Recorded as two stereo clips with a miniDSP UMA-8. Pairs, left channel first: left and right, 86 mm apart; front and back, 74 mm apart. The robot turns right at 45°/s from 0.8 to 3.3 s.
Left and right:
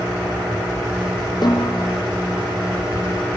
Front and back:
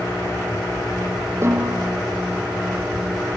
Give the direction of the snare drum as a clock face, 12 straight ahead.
8 o'clock.